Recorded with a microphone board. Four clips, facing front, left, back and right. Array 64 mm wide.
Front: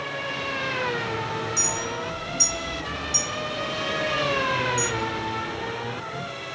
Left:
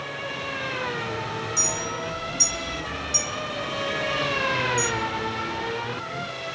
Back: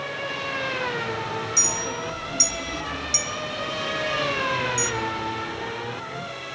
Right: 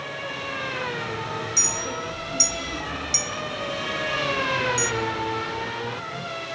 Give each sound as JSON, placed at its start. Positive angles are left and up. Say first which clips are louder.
{"t": 1.6, "sound": "a clink", "louder": "even, even", "azimuth_deg": -140, "distance_m": 1.1}